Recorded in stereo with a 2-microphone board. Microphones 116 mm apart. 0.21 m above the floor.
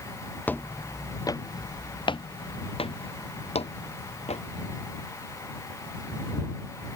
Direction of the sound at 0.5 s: 15° left (ahead or behind).